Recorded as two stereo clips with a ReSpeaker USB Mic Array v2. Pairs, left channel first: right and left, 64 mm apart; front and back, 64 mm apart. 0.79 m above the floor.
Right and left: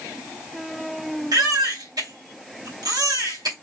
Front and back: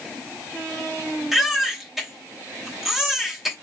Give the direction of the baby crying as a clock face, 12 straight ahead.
9 o'clock.